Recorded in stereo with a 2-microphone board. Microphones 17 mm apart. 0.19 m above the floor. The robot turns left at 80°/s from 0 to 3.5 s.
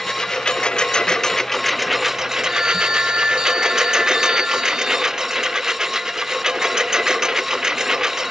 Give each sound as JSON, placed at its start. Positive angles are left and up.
{"t": 0.0, "sound": "a lawn mower", "azimuth_deg": 145}
{"t": 2.5, "sound": "a phone ringing", "azimuth_deg": -30}